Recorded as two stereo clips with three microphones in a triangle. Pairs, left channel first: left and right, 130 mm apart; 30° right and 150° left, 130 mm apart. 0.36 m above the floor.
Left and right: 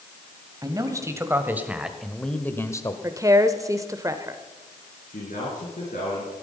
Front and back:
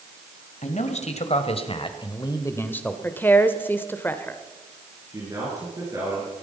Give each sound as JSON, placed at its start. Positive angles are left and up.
{"t": 0.6, "sound": "a man speaking", "azimuth_deg": -30, "distance_m": 1.9}
{"t": 3.0, "sound": "a woman speaking", "azimuth_deg": -85, "distance_m": 0.9}
{"t": 5.1, "sound": "a man speaking", "azimuth_deg": 90, "distance_m": 4.5}